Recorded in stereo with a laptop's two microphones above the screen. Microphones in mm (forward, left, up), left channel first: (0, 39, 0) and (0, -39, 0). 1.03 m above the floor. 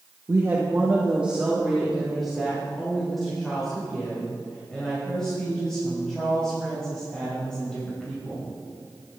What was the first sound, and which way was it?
A woman speaking, 35° right (ahead or behind).